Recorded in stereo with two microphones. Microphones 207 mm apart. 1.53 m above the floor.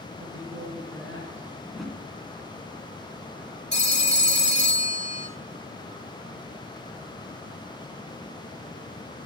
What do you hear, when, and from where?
0.2 s a woman speaking: 85° right, 6.5 m
1.6 s a whoosh: 5° left (ahead or behind), 2.5 m
3.7 s a phone ringing: 55° left (ahead or behind), 1.9 m